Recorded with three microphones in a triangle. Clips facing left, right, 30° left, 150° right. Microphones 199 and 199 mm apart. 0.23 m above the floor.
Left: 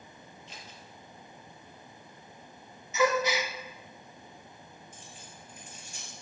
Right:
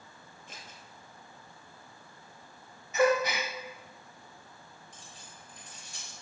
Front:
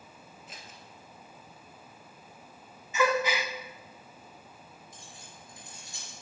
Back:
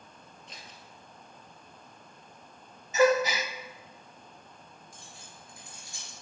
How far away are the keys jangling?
About 3 m.